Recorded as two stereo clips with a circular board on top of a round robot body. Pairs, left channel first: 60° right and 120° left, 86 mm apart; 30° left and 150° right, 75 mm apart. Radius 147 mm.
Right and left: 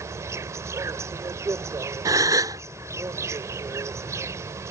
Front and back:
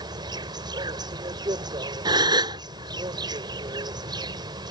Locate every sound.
0.0 s an insect: straight behind
2.0 s a gasp: 175° left